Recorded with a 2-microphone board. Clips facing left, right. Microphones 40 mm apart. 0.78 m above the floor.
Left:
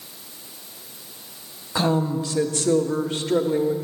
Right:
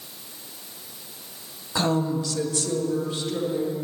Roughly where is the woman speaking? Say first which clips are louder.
Left 2 dB; centre.